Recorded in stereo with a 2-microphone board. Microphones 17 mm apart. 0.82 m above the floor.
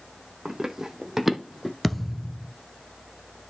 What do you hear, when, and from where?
0.5 s running footsteps: 40° right (ahead or behind), 1.7 m; by 1.7 s centre (ahead or behind), 1.5 m
1.8 s a thud: 5° right (ahead or behind), 1.4 m